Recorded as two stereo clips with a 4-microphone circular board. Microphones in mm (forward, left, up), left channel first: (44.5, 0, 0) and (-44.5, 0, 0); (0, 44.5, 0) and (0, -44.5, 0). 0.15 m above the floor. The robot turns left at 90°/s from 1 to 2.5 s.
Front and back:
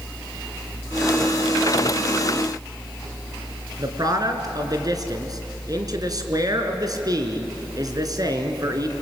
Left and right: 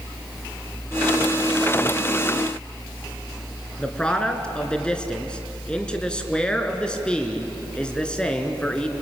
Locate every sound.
3.8 s a man speaking: 165° left, 2.5 m